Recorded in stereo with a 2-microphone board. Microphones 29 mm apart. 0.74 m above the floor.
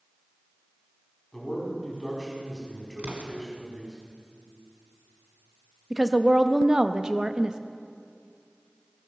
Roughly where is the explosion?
Right.